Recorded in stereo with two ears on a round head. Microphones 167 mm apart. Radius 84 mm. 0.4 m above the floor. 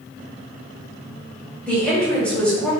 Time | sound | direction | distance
1.7 | a woman speaking | 5° left (ahead or behind) | 1.8 m